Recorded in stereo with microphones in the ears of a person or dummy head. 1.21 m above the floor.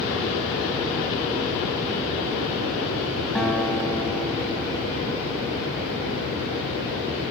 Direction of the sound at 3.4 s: 10° left (ahead or behind).